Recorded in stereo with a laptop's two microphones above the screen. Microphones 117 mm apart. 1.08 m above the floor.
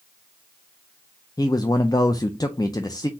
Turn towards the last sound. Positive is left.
turn(degrees=35)  # may be behind; listen again after turning